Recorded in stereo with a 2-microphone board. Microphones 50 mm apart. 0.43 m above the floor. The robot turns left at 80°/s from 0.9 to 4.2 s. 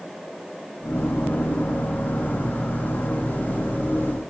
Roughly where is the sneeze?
No sneeze in this recording.